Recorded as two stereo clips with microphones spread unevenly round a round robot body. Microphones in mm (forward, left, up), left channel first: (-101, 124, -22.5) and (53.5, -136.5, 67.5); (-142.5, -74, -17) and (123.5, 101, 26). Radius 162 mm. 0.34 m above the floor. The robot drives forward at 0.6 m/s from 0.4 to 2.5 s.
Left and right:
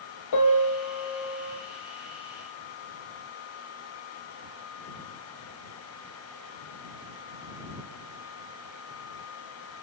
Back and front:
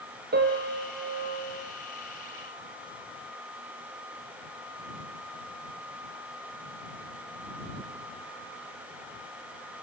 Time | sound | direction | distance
0.3 | a piano | 95° left | 4 m